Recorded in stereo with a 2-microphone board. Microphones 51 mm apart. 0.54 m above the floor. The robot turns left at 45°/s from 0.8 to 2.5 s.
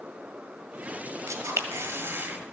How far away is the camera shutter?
About 1.6 m.